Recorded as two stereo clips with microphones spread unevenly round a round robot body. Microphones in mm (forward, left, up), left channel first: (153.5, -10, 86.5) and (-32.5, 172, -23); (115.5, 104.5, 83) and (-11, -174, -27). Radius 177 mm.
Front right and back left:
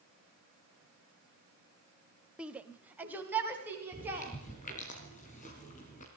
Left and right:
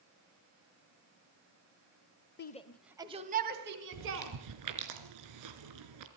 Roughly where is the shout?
Behind left.